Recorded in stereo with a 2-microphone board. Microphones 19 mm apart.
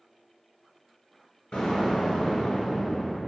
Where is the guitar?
I don't hear a guitar.